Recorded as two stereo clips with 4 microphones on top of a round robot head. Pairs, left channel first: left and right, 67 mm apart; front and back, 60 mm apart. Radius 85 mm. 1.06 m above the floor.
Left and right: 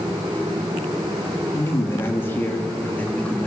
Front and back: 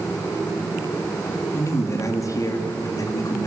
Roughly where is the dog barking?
I don't hear a dog barking.